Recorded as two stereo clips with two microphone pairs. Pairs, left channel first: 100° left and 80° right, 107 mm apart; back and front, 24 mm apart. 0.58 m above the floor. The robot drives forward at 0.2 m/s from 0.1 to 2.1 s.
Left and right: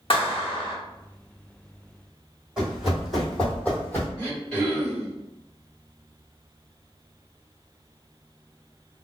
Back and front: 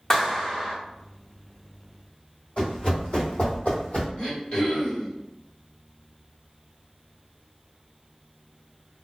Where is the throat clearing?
Straight behind, 1.8 m.